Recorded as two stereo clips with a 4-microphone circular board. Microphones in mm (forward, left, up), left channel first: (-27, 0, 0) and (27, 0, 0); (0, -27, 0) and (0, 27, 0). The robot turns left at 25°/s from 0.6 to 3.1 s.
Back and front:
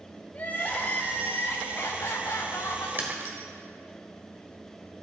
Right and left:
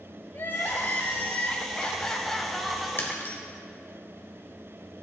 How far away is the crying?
About 0.7 m.